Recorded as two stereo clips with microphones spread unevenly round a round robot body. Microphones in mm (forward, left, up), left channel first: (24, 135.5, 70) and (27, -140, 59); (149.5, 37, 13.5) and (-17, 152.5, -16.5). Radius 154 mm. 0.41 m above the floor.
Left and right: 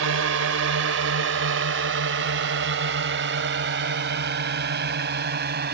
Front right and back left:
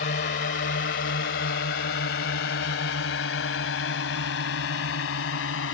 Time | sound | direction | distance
0.0 | a drone | 70° right | ?